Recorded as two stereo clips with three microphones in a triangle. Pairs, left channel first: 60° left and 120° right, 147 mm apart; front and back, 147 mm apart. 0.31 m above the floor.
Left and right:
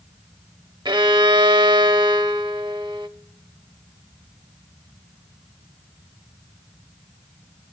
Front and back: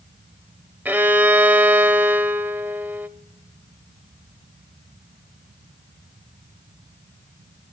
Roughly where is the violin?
Behind right.